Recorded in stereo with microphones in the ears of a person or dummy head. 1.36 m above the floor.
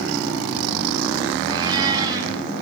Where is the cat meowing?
20° right (ahead or behind), 3 m.